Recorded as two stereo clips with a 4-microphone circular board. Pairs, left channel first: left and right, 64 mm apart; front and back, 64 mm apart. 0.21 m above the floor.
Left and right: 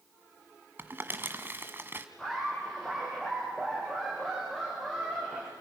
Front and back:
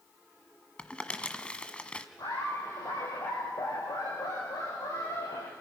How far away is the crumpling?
About 1.4 m.